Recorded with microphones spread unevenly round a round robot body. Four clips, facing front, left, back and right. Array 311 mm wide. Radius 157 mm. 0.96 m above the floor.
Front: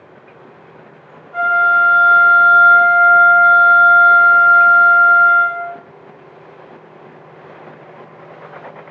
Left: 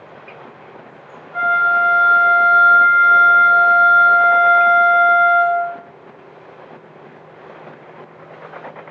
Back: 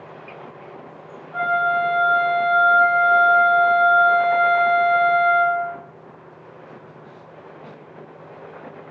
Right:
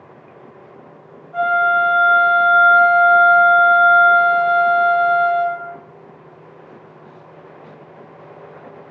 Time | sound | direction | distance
1.3 | a flute | 20° right | 2.5 m